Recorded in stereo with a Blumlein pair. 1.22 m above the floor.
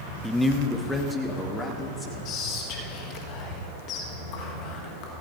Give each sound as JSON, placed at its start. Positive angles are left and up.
{"t": 0.2, "sound": "a man speaking", "azimuth_deg": 0, "distance_m": 0.8}
{"t": 2.2, "sound": "whispering", "azimuth_deg": 35, "distance_m": 1.7}